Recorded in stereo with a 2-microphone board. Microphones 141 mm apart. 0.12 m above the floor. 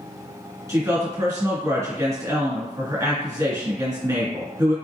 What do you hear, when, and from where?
0.7 s a woman speaking: 20° right (ahead or behind), 1.2 m